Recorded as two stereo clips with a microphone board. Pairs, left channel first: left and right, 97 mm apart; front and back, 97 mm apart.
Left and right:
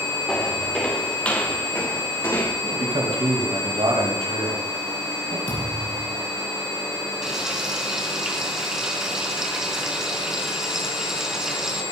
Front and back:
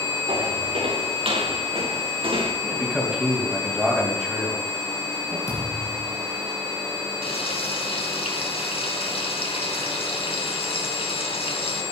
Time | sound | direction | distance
0.3 | footsteps | 175° left | 4.5 m
2.6 | a man speaking | 95° right | 4 m
5.5 | a thud | 50° left | 8 m
7.2 | frying | 5° right | 4 m